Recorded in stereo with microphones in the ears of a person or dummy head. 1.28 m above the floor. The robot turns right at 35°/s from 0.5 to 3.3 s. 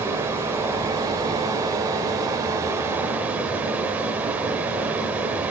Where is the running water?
15° right (ahead or behind), 1.0 m; by 5.5 s 10° right (ahead or behind), 1.0 m.